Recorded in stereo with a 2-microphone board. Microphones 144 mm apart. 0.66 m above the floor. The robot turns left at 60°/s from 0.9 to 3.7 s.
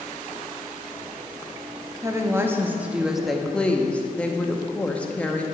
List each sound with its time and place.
2.0 s a woman speaking: 20° right (ahead or behind), 0.6 m; by 5.5 s 10° left (ahead or behind), 0.6 m